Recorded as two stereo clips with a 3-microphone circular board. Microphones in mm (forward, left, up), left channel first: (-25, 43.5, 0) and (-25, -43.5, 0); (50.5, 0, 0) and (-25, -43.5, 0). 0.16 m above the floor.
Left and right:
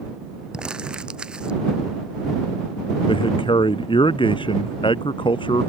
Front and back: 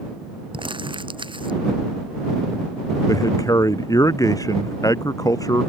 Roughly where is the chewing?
I don't hear chewing.